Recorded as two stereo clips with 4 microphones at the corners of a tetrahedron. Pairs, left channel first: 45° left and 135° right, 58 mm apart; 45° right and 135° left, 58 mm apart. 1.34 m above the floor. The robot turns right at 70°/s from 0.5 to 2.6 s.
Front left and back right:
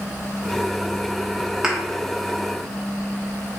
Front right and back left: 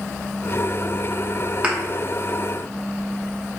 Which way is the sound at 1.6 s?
165° left.